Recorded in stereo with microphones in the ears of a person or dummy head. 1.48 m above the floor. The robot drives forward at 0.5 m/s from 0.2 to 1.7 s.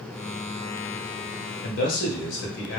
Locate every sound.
1.6 s a man speaking: 60° left (ahead or behind), 1.2 m